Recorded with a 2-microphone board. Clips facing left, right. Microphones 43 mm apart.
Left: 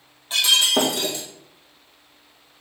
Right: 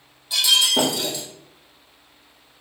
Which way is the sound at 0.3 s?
40° left (ahead or behind).